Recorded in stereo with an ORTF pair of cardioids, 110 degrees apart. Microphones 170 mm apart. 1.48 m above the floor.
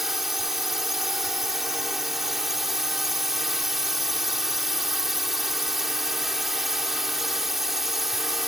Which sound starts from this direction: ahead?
A drone, at 0.0 s.